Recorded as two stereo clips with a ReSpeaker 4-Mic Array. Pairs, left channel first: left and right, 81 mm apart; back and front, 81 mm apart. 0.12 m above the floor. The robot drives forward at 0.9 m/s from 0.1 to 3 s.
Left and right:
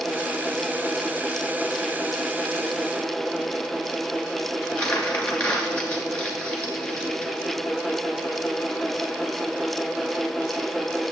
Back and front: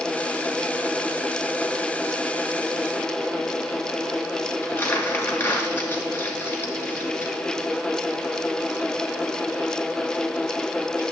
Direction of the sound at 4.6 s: 160° left.